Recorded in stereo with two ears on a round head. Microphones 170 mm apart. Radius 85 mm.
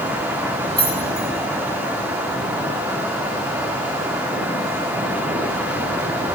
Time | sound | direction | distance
0.8 | keys jangling | 25° right (ahead or behind) | 10 m